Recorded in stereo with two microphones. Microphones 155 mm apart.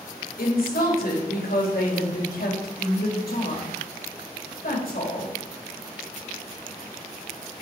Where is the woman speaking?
75° left (ahead or behind), 2.5 m.